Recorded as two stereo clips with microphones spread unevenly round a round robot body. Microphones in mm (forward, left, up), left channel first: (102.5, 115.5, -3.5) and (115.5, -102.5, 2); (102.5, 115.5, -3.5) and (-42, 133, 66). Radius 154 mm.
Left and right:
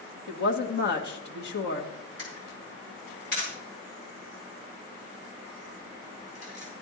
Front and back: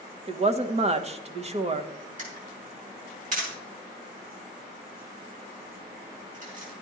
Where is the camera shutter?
155° left, 6 m.